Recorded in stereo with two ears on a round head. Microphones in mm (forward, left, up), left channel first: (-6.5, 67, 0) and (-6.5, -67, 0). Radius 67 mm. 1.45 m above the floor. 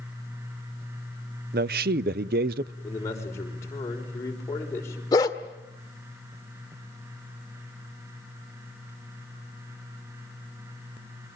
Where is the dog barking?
25° left (ahead or behind), 1.7 m.